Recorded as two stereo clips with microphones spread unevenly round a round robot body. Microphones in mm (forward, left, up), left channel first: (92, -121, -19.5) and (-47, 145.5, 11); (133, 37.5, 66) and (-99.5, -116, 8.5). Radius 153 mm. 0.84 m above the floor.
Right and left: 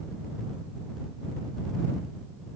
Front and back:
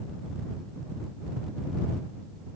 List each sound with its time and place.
Only background noise.